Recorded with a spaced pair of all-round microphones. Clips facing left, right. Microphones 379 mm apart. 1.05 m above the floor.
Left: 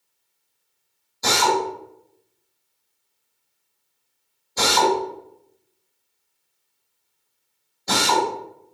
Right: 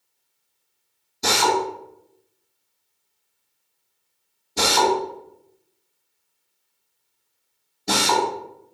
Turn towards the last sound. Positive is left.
turn(degrees=-40)  # may be behind; listen again after turning